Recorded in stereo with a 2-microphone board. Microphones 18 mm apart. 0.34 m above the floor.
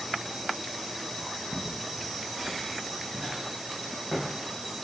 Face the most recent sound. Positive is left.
turn(degrees=-25)  # may be behind; listen again after turning